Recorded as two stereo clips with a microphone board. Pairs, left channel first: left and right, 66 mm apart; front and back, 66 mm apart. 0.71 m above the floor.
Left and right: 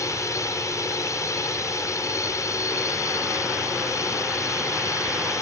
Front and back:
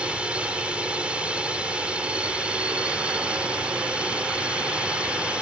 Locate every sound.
0.0 s a drone: 110° left